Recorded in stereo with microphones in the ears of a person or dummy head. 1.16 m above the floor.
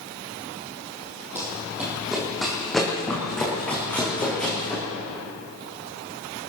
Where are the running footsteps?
10° right (ahead or behind), 2 m; by 4.8 s 10° left (ahead or behind), 5.5 m.